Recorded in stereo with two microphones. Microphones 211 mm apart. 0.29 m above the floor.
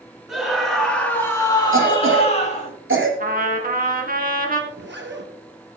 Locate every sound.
0.3 s a scream: 5° right (ahead or behind), 2 m; by 2.7 s 35° left (ahead or behind), 1.7 m
1.7 s a cough: 70° right (ahead or behind), 4.5 m
3.2 s a trumpet: 45° right (ahead or behind), 1.9 m
4.7 s a zipper: 60° right (ahead or behind), 1.9 m